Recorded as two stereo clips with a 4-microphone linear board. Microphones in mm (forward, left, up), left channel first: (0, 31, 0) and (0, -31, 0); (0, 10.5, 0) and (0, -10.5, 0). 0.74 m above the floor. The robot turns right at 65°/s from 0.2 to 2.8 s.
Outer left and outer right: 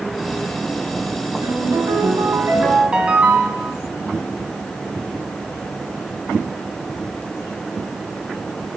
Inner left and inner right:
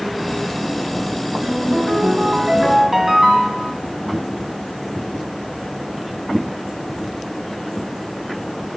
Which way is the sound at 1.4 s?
110° right.